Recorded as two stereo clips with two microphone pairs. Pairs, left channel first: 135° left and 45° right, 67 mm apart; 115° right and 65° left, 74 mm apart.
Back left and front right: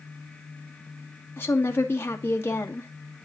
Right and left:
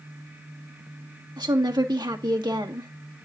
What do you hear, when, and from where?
1.4 s a woman speaking: 80° left, 1.8 m